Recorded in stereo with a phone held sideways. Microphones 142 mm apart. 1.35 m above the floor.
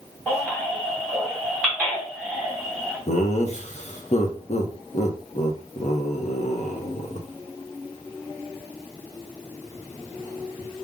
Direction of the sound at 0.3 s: Centre (ahead or behind).